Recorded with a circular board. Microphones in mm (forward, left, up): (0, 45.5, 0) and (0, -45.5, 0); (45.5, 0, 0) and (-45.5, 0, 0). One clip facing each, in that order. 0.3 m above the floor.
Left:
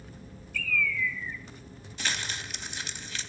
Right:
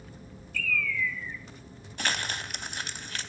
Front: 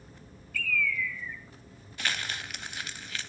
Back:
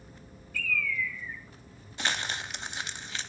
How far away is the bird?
About 1.9 m.